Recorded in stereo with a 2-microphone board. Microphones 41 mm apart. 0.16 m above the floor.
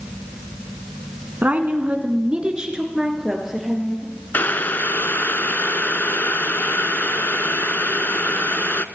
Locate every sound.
1.4 s a woman speaking: 40° right (ahead or behind), 1.4 m; by 4.1 s 5° right (ahead or behind), 3.5 m
4.3 s boiling: 55° left (ahead or behind), 0.5 m